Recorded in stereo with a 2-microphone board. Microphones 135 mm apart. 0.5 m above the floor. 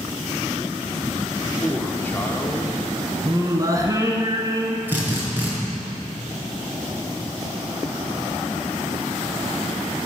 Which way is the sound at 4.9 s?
15° right (ahead or behind).